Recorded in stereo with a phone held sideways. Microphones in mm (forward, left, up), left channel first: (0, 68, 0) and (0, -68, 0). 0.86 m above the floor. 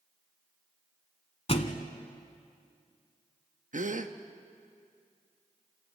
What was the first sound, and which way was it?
A thud, 45° left (ahead or behind).